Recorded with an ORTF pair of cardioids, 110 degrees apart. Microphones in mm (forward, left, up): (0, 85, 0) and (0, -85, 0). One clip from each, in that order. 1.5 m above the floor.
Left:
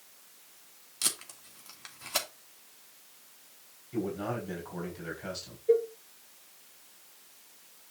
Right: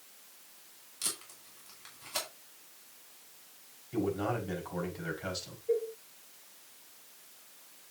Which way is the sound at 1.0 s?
40° left.